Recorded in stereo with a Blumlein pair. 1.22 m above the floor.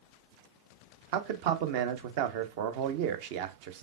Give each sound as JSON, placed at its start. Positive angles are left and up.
{"t": 1.1, "sound": "a man speaking", "azimuth_deg": -50, "distance_m": 0.7}